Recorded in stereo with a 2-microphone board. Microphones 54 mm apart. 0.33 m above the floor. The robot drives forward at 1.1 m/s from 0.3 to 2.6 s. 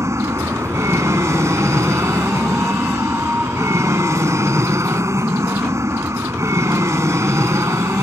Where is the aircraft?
65° right (ahead or behind).